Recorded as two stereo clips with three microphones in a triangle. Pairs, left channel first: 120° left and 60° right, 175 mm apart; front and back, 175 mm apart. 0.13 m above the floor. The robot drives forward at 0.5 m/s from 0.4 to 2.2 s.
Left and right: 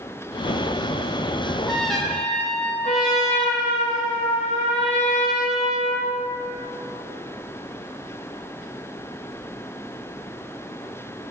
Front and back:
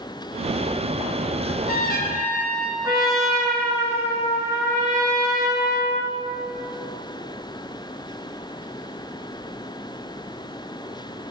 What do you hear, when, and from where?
1.4 s a trumpet: 25° left, 1.1 m; by 3.6 s 40° left, 0.8 m
2.8 s a trumpet: 115° left, 1.8 m